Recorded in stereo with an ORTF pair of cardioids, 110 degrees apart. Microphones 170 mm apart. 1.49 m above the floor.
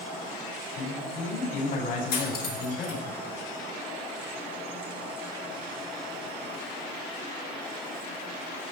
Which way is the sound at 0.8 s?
70° left.